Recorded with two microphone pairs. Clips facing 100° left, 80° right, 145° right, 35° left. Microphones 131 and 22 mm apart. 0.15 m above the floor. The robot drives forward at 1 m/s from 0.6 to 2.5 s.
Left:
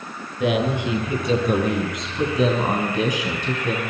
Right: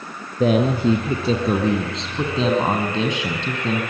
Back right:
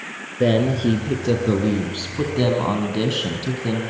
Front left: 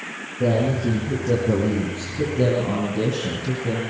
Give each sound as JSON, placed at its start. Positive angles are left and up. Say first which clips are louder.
{"t": 0.4, "sound": "a man speaking", "louder": "right 4 dB, back right 3 dB", "azimuth_deg": -125, "distance_m": 4.0}